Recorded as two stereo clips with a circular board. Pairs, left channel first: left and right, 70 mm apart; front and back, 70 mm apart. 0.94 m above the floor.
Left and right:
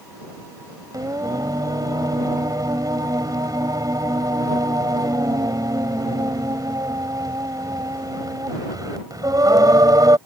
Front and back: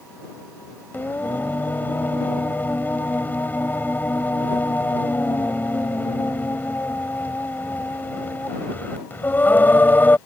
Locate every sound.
0.9 s singing: 65° right